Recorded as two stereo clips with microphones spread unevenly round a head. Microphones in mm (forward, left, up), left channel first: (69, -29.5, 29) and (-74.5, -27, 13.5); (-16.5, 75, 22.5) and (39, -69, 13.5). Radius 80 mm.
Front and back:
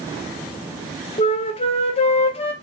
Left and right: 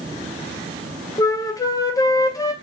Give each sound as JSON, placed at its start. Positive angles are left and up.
{"t": 1.2, "sound": "a flute", "azimuth_deg": 45, "distance_m": 0.8}